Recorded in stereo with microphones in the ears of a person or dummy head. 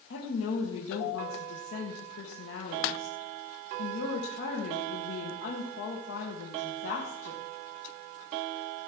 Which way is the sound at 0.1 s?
90° left.